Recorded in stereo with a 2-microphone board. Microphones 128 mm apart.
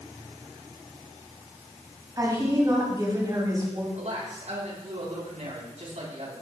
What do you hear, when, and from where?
2.2 s a woman speaking: 30° right (ahead or behind), 5 m
4.0 s a man speaking: 65° right (ahead or behind), 5.5 m